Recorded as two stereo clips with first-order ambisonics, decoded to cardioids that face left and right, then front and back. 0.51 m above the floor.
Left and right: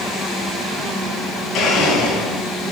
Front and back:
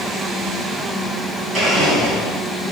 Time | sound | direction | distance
1.5 | a blender | 125° left | 4 m